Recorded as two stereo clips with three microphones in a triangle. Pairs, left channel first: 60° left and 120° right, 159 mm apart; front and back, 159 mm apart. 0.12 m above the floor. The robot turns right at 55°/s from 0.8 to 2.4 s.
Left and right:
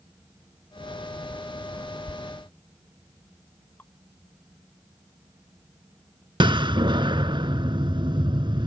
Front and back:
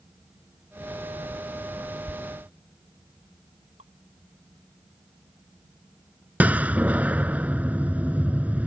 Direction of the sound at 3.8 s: 140° left.